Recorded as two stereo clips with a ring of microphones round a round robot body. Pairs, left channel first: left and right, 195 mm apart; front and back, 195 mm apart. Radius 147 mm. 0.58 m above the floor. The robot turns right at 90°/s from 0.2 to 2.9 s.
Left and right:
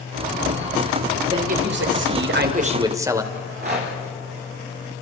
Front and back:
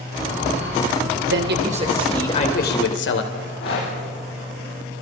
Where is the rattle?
55° right, 8 m.